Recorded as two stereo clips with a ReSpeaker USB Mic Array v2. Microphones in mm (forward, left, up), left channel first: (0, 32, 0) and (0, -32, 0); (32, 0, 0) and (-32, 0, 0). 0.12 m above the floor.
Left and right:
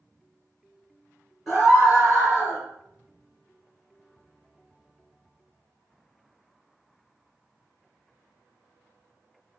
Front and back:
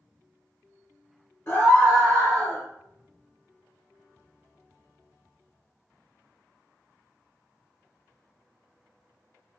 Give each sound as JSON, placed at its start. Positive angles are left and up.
{"t": 1.5, "sound": "a scream", "azimuth_deg": -5, "distance_m": 1.6}